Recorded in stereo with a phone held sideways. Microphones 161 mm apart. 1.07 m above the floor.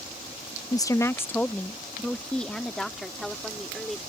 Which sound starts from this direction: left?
A woman speaking, at 0.7 s.